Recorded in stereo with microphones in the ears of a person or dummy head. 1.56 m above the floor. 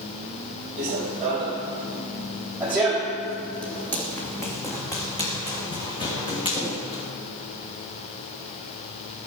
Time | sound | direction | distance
0.8 | running footsteps | 40° right (ahead or behind) | 2.5 m